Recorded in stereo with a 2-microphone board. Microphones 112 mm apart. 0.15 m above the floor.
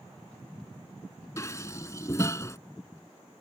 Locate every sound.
1.4 s dishes clattering: 25° left (ahead or behind)